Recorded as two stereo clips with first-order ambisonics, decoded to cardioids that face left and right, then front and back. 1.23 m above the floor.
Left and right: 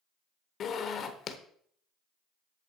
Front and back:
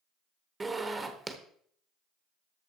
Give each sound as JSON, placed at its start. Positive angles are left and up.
{"t": 0.6, "sound": "a zipper", "azimuth_deg": 110, "distance_m": 1.0}